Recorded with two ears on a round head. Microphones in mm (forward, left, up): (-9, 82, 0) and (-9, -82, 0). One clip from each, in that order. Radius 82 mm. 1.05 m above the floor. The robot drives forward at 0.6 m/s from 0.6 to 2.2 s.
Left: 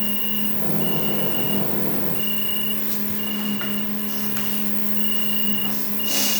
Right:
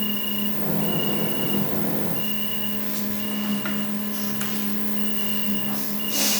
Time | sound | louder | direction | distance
0.0 | an insect | even | 75° left (ahead or behind) | 9 m